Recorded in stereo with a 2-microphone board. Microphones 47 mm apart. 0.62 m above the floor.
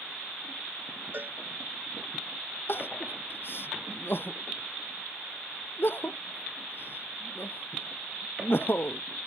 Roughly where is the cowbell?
Right.